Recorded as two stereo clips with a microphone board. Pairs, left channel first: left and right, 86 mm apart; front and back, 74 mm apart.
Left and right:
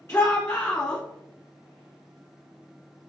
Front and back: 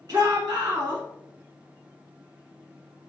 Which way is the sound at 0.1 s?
155° left.